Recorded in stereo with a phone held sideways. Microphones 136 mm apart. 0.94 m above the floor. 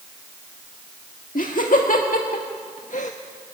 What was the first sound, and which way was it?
Laughter, 75° left (ahead or behind).